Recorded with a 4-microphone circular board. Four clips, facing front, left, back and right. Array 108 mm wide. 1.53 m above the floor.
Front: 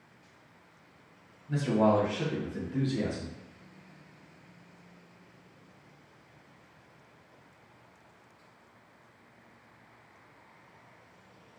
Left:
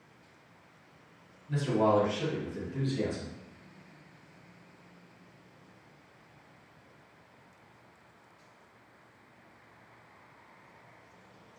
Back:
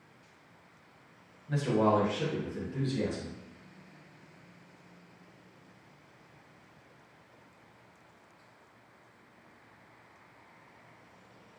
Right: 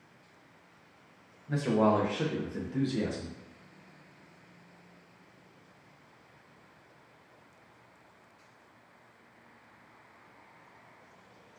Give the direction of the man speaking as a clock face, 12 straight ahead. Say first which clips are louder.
Even, front 1 dB; 4 o'clock.